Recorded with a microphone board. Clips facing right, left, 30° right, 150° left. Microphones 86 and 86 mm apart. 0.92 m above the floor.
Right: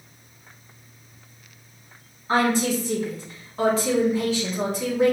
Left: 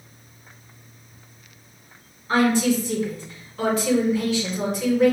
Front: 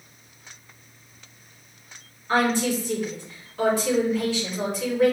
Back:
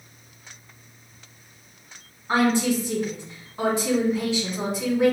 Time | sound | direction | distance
2.3 | a woman speaking | 140° right | 2 m